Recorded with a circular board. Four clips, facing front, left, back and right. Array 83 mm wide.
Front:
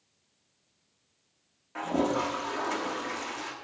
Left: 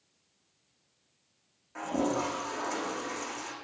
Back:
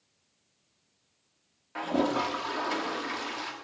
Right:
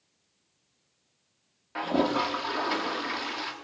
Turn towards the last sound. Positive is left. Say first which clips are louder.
# right 4 dB, even
turn(degrees=-100)